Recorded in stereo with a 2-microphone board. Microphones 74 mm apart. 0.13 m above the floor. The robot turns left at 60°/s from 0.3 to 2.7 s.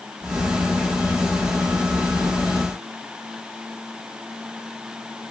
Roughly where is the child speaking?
I don't hear a child speaking.